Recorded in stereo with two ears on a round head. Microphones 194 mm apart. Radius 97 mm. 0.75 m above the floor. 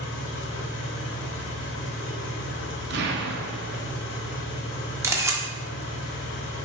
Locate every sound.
0.0 s an engine running: 60° left (ahead or behind), 0.8 m
2.9 s an explosion: 50° right (ahead or behind), 0.6 m
5.0 s a camera shutter: 15° right (ahead or behind), 0.6 m